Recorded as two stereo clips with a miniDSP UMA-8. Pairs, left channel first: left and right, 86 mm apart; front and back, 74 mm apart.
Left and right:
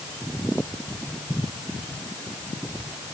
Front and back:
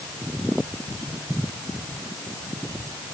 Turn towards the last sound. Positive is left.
No sound to turn to.